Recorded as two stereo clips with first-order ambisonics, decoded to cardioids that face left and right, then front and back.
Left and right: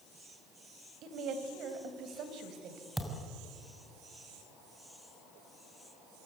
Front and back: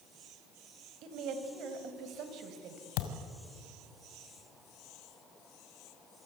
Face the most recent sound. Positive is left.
turn(degrees=-5)